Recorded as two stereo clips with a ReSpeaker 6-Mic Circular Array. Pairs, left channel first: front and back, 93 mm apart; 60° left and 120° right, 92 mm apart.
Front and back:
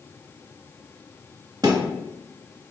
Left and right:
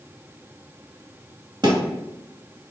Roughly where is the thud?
Behind right.